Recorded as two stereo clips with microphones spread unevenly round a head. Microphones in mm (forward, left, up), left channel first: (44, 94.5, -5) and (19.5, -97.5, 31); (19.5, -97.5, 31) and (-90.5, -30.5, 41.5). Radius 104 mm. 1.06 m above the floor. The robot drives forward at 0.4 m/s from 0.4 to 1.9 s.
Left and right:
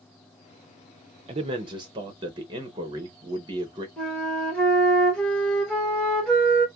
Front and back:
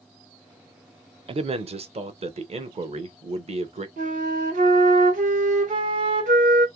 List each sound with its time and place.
1.3 s a man speaking: 165° right, 0.5 m; by 3.9 s 170° right, 0.8 m
4.0 s a flute: 170° left, 0.9 m